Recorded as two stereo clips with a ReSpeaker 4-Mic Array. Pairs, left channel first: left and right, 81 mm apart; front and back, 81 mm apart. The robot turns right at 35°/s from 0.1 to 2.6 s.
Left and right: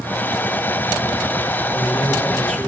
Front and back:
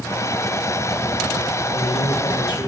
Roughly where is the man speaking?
Ahead.